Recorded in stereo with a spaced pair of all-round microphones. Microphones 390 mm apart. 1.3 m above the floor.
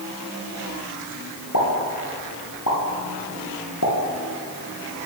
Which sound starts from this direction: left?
A pop, at 1.5 s.